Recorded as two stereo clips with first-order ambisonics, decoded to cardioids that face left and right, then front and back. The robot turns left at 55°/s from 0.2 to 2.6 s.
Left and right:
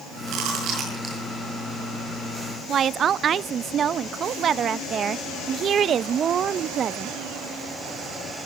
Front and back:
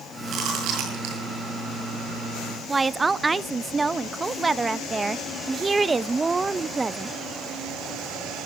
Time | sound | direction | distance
0.3 | chewing | 120° right | 8.5 m
2.7 | a woman speaking | 115° right | 0.5 m